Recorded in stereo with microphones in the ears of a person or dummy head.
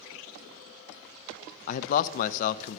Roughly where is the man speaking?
Left.